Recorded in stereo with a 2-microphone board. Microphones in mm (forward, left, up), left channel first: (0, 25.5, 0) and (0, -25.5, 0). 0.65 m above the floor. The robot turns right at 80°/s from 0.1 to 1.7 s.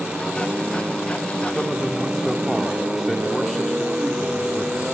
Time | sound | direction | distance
1.6 | a man speaking | 15° left (ahead or behind) | 1.2 m